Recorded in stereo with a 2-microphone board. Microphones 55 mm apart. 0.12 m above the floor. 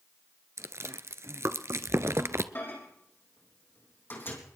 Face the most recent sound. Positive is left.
turn(degrees=40)  # may be behind; listen again after turning